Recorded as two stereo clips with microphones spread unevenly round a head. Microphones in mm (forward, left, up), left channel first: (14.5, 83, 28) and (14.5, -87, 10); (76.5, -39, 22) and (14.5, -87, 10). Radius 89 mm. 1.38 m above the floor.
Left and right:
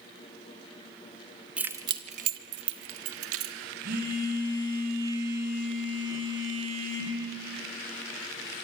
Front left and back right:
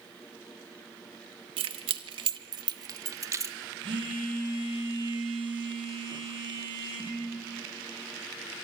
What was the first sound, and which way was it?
Keys jangling, 175° right.